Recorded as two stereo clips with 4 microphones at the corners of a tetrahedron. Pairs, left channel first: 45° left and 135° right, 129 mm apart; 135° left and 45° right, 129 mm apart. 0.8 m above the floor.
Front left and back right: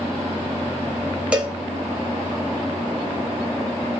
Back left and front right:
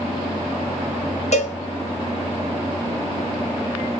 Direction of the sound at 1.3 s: 145° left.